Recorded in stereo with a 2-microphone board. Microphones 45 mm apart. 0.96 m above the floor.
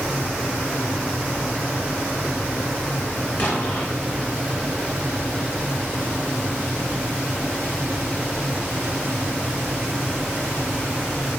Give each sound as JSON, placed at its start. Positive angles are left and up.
{"t": 3.4, "sound": "an explosion", "side_deg": 40, "distance_m": 5.5}